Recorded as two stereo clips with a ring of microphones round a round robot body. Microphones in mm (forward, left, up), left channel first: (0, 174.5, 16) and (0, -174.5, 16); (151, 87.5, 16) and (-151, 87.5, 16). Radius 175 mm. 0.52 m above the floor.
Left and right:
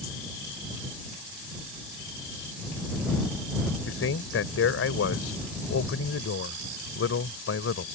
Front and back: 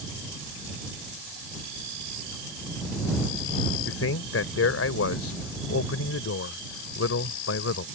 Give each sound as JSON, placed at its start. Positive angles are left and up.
{"t": 3.9, "sound": "a man speaking", "azimuth_deg": 40}